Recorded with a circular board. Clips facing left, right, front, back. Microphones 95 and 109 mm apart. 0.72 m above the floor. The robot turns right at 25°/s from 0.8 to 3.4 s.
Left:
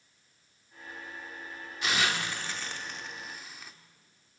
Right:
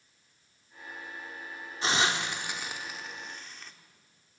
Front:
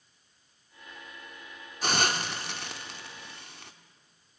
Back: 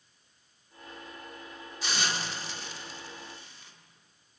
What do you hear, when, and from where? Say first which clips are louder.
1.8 s a hiss: right 2 dB, front 5 dB; 35° right, 1.9 m; by 3.7 s 5° left, 1.9 m